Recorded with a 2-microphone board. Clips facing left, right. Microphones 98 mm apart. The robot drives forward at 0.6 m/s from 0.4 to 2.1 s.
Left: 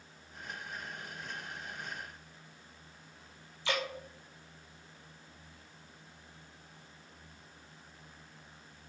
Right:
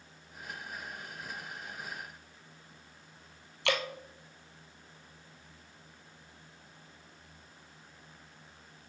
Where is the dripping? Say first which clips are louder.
Right 3 dB; 70° right (ahead or behind), 1.5 m.